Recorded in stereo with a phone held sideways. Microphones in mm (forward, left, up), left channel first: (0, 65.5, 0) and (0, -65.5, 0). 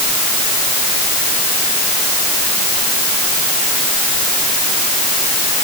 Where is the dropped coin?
I don't hear a dropped coin.